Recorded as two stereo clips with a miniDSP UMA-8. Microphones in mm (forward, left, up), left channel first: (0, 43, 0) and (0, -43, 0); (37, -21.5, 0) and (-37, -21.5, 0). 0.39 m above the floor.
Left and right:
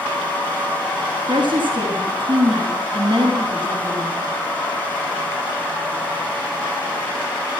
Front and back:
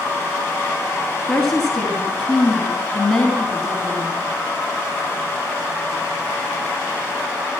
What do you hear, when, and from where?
1.3 s a woman speaking: 60° right, 3.5 m